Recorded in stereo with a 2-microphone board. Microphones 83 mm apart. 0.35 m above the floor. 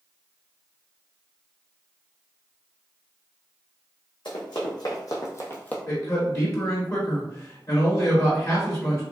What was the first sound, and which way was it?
Running footsteps, 60° left (ahead or behind).